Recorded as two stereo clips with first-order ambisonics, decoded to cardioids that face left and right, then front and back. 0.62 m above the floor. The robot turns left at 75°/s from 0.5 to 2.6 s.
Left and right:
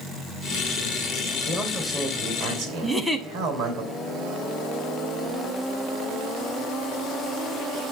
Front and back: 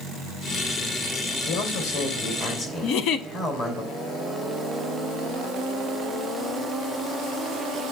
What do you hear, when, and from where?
1.5 s a man speaking: 30° left, 2.5 m; by 3.8 s 55° right, 2.5 m
2.8 s a giggle: straight ahead, 0.7 m